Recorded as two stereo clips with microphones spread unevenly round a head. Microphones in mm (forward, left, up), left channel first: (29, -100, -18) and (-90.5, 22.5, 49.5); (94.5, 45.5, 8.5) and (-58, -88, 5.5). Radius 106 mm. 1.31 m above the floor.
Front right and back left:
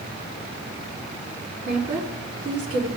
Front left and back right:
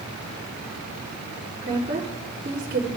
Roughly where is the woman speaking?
Behind left.